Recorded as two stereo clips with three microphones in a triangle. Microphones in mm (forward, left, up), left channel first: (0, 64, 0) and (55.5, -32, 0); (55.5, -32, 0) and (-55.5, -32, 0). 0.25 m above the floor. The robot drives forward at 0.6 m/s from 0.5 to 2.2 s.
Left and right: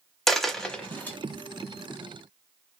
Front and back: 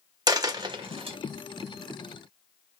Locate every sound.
0.3 s a dropped coin: 155° right, 0.6 m; by 1.2 s 170° right, 0.9 m